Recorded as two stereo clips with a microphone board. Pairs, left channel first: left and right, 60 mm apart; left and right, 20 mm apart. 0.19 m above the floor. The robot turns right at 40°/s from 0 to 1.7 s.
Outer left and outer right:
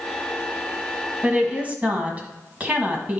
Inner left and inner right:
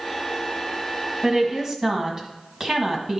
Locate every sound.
1.2 s a woman speaking: 25° right (ahead or behind), 1.5 m